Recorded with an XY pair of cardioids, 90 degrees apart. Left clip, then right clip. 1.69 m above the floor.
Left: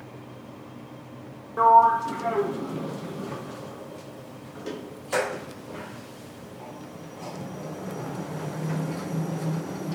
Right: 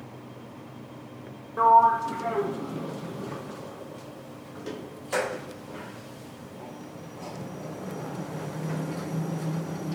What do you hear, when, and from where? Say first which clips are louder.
1.6 s a sliding door: left 1 dB; 10° left, 1.0 m